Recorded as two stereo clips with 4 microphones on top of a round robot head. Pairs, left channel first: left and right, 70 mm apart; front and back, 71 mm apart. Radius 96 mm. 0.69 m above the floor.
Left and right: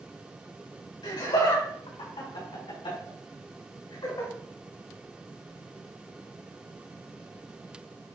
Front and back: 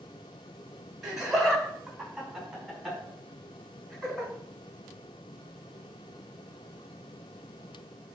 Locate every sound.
1.0 s laughter: 100° left, 4 m; by 4.3 s 85° left, 6 m